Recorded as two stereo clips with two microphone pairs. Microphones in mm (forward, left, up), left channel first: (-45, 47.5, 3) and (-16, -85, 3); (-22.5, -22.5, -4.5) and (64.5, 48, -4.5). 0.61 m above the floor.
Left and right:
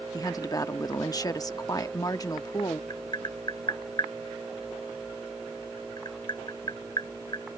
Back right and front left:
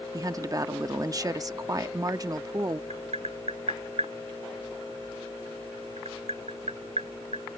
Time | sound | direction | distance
0.1 | a woman speaking | 60° left | ?
2.9 | tapping | 45° left | ?